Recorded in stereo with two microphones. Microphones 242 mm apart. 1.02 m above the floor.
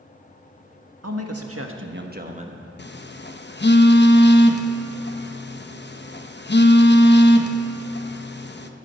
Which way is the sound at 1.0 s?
75° right (ahead or behind).